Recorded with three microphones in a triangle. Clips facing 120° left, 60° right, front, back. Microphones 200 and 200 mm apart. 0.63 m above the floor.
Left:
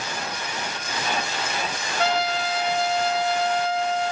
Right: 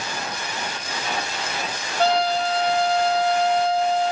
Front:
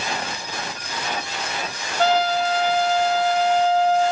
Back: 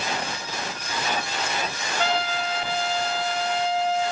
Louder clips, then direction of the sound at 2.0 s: Right 4 dB, front 7 dB; 20° right.